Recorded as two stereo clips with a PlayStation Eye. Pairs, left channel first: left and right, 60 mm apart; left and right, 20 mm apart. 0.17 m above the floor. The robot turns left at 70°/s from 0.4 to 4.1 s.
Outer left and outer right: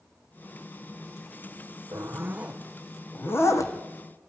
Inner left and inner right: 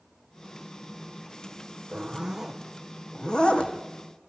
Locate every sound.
1.9 s a zipper: 60° right (ahead or behind), 3 m; by 3.7 s 70° left (ahead or behind), 3 m